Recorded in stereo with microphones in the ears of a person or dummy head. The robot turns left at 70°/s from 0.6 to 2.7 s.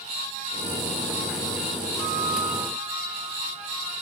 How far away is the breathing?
I don't hear breathing.